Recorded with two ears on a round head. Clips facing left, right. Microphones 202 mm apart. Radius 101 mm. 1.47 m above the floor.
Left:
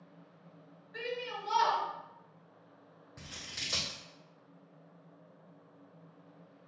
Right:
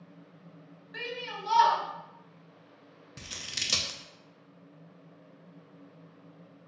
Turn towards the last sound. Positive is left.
turn(degrees=-45)  # may be behind; listen again after turning